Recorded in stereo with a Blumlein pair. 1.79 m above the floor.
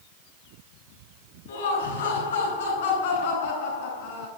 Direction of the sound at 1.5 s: 65° left.